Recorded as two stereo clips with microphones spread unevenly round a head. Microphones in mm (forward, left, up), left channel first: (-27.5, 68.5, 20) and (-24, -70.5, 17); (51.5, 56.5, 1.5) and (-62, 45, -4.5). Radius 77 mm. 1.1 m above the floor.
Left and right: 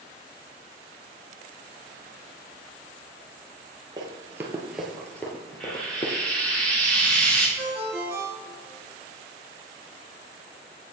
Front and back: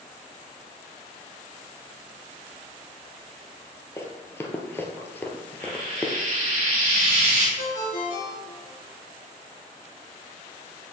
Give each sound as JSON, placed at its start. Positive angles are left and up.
{"t": 4.0, "sound": "running footsteps", "azimuth_deg": -45, "distance_m": 1.3}
{"t": 5.6, "sound": "frying", "azimuth_deg": 175, "distance_m": 3.0}
{"t": 7.6, "sound": "a ringtone", "azimuth_deg": -10, "distance_m": 1.6}